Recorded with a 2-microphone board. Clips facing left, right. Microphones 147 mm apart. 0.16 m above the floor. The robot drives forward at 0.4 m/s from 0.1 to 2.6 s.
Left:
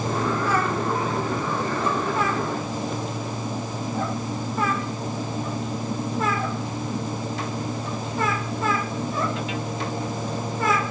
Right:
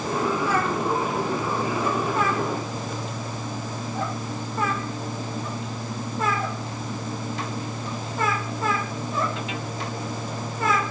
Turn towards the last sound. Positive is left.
No sound to turn to.